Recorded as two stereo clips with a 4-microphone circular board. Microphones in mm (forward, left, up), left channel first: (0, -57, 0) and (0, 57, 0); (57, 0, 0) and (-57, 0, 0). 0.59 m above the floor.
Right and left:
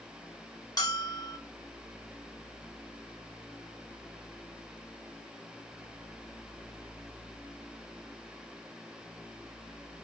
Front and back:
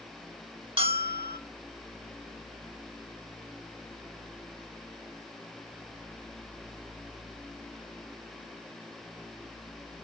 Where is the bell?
145° right, 1.2 m.